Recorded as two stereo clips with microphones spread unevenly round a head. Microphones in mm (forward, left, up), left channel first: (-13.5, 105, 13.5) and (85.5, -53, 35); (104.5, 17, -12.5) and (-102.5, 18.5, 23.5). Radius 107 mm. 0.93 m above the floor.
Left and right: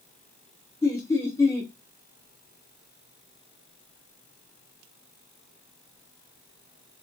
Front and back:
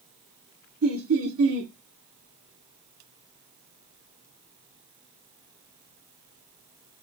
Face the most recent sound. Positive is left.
turn(degrees=-165)